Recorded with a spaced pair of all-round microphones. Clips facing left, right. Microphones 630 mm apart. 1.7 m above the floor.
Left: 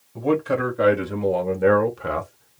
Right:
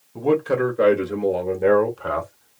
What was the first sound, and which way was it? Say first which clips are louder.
A man speaking: right 2 dB; 5° left (ahead or behind).